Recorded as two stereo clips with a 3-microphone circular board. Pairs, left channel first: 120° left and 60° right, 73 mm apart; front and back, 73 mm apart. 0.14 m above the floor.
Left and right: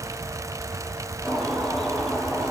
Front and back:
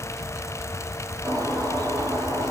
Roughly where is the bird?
Behind.